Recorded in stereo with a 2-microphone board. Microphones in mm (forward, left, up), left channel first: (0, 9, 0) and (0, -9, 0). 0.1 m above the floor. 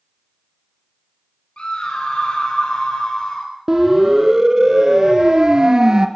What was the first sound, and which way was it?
A scream, 60° left (ahead or behind).